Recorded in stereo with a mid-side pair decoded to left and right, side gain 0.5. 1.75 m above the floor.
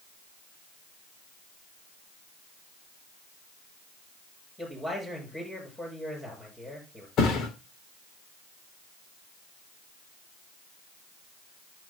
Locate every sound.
4.6 s a man speaking: 15° left, 8 m
7.2 s a thud: 65° left, 3 m